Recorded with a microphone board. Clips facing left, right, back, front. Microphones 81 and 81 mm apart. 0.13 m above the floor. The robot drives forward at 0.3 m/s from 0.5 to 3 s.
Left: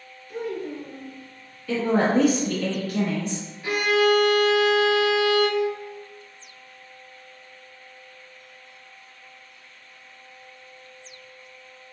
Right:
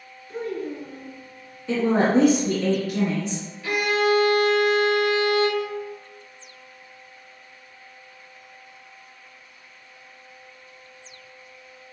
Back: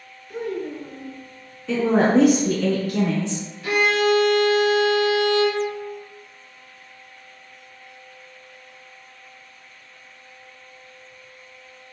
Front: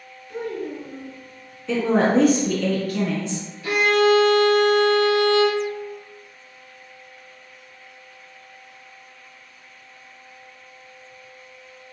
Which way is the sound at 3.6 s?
160° left.